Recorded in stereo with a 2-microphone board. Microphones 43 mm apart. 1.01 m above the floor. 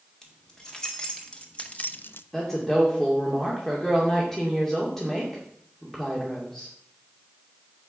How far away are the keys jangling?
About 2.5 m.